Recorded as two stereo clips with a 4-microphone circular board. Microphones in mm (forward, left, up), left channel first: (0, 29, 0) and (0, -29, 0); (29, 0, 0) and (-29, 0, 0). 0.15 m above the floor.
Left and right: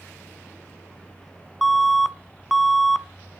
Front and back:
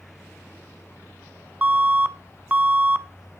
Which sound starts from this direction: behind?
An alarm, at 1.6 s.